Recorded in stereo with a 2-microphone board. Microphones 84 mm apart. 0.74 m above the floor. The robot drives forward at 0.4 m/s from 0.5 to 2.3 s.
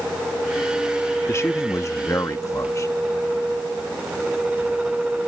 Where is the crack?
I don't hear a crack.